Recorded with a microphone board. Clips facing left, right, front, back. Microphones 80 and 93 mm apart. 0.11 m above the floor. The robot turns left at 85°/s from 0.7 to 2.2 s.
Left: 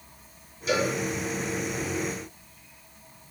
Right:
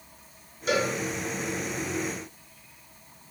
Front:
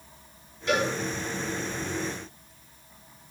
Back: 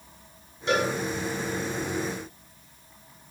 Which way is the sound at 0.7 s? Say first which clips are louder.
Even, back 1 dB; 125° right.